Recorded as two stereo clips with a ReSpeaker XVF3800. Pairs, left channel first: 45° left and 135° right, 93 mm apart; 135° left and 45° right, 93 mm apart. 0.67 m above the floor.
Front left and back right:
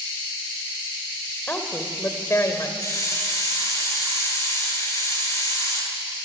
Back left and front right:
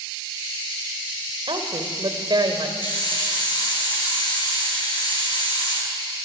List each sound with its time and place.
1.5 s a woman speaking: 25° right, 3 m; by 2.7 s 10° right, 3 m
2.8 s a hiss: 95° left, 9.5 m